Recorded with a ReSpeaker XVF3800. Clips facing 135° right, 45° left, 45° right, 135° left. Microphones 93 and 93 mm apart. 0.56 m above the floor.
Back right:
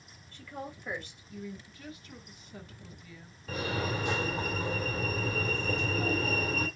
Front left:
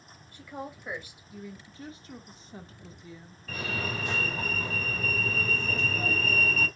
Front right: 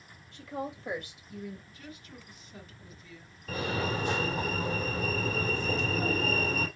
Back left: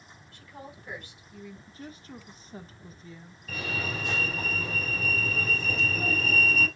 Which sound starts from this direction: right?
A fire alarm, at 3.5 s.